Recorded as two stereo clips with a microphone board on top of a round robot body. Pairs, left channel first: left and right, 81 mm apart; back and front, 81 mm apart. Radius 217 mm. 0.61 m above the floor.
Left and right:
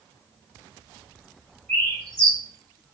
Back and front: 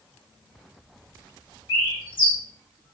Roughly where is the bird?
Behind.